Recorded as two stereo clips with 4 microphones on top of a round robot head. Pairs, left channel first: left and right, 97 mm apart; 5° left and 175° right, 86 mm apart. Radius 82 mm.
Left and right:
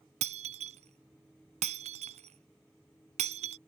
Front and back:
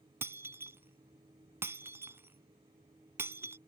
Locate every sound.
0.2 s breaking glass: 105° right